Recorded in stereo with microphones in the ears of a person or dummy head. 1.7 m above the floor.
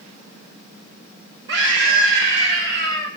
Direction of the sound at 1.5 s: 75° right (ahead or behind).